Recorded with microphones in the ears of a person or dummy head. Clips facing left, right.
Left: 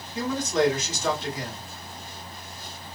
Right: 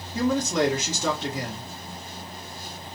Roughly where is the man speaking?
Right.